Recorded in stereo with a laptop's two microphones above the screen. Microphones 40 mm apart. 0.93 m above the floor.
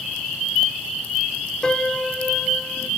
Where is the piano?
20° left (ahead or behind).